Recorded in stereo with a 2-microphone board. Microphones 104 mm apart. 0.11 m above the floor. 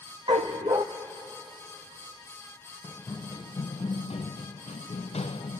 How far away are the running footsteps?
About 0.9 m.